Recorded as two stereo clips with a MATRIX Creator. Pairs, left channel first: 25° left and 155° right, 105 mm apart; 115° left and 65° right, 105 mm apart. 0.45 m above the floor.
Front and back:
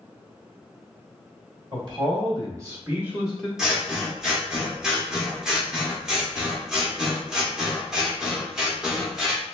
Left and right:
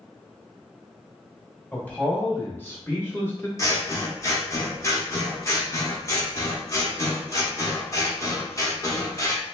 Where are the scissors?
125° left, 0.8 m.